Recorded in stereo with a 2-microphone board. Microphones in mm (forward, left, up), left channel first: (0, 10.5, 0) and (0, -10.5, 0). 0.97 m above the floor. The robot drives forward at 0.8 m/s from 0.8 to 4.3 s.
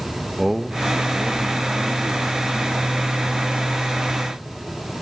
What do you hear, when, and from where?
0.4 s a man speaking: 5° right (ahead or behind), 1.0 m; by 3.5 s centre (ahead or behind), 3 m